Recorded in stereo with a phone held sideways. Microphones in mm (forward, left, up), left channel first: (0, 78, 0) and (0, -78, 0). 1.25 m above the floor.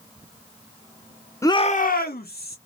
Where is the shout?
20° left (ahead or behind), 0.6 m; by 2.6 s 80° left, 1.2 m.